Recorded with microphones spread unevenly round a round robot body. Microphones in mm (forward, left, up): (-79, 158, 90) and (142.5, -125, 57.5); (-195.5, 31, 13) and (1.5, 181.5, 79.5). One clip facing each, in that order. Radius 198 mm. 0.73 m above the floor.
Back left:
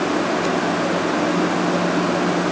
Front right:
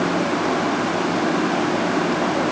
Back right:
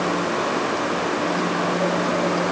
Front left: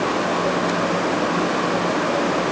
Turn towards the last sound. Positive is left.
No sound to turn to.